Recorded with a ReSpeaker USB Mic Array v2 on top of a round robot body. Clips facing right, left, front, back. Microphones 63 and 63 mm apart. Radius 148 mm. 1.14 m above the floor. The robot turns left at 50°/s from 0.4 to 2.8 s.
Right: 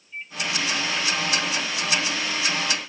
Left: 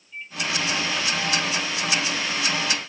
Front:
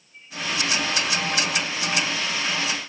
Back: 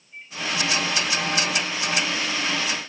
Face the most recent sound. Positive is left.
turn(degrees=75)